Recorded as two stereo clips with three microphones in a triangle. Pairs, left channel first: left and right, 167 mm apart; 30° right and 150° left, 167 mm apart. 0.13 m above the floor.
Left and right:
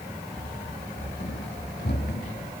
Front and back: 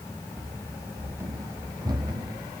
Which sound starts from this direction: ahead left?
Running footsteps, at 0.3 s.